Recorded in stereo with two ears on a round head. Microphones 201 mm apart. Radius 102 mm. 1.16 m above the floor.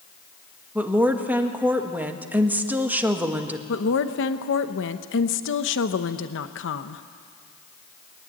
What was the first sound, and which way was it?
A woman speaking, 10° right (ahead or behind).